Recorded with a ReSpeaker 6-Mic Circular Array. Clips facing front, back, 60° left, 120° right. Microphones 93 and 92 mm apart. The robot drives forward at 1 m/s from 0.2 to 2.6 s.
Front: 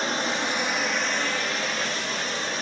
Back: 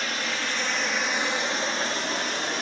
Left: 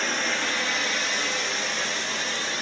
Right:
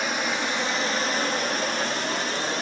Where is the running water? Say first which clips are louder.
Front 4 dB, right 1 dB; 50° right, 1.4 m; by 2.6 s 155° right, 2 m.